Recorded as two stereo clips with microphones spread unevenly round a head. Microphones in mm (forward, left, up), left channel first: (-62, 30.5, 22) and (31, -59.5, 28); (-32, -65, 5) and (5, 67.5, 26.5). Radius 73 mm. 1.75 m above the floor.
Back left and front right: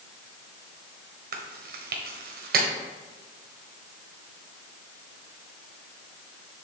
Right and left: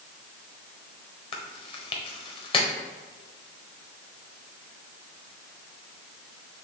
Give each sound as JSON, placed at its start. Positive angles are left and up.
{"t": 1.3, "sound": "chewing", "azimuth_deg": -50, "distance_m": 1.2}